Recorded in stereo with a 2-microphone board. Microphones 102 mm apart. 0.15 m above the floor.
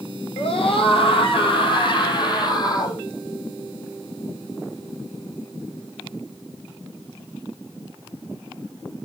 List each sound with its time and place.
0.4 s a scream: 65° left (ahead or behind), 5.5 m; by 3.0 s 40° left (ahead or behind), 6.5 m